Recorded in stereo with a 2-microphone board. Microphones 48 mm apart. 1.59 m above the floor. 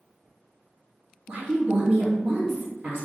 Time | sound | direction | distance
1.3 | a woman speaking | 40° right (ahead or behind) | 0.9 m